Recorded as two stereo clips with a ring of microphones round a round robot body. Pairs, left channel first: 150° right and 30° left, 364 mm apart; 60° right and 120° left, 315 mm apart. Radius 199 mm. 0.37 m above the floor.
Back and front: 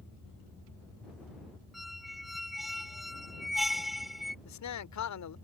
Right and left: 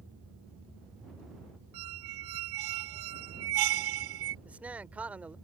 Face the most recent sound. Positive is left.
turn(degrees=-155)